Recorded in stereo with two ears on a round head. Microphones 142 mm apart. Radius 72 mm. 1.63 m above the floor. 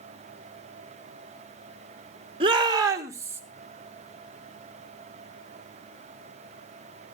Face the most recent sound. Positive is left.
turn(degrees=-15)  # may be behind; listen again after turning